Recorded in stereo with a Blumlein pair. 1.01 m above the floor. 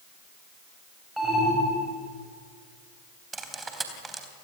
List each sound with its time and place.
1.2 s an alarm: straight ahead, 8.5 m
3.3 s cutlery clinking: 10° right, 3.5 m